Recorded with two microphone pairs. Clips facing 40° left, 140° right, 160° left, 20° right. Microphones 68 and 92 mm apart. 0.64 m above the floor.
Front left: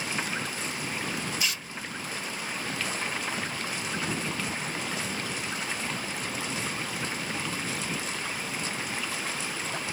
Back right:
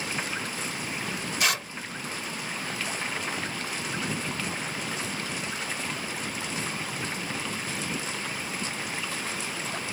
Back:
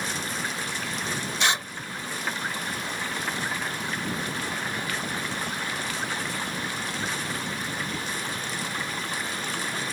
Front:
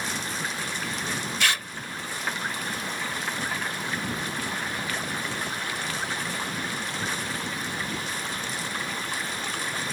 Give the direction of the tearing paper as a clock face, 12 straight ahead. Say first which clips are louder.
Back right 6 dB, back 2 dB; 4 o'clock.